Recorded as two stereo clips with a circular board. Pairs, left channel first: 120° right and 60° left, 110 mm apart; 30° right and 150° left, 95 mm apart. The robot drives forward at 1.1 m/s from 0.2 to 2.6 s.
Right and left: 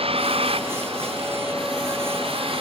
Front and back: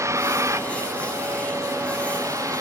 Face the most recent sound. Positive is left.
turn(degrees=95)